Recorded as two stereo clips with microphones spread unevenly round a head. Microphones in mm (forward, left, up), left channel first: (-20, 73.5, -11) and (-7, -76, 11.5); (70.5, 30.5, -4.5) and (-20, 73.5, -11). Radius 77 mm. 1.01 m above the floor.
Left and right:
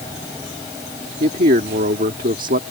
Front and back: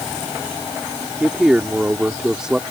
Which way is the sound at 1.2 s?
120° right.